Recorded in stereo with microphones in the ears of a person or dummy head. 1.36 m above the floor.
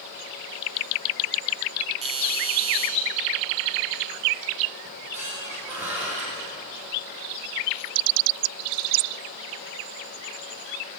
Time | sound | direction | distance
2.0 | a doorbell | 30° right (ahead or behind) | 4.5 m
4.8 | a squeak | 10° right (ahead or behind) | 7.5 m